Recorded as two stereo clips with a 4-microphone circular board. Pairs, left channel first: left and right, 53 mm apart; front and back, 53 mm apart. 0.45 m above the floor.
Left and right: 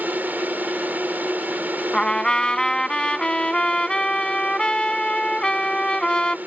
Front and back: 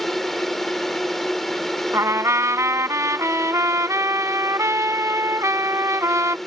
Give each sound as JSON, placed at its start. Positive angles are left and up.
{"t": 0.0, "sound": "a drone", "azimuth_deg": -85}
{"t": 1.9, "sound": "a trumpet", "azimuth_deg": 165}